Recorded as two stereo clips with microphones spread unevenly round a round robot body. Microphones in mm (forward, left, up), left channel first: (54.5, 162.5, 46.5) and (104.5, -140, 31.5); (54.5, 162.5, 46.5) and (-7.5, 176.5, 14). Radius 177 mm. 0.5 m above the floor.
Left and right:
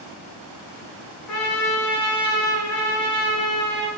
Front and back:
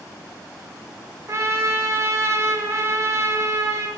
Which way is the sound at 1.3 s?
145° left.